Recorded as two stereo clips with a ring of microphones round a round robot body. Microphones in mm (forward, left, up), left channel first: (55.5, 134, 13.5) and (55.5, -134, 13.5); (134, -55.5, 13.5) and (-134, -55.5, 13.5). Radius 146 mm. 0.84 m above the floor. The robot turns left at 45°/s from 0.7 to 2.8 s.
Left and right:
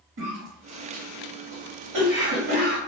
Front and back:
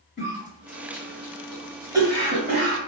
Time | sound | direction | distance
0.2 | a cough | 50° right | 1.9 m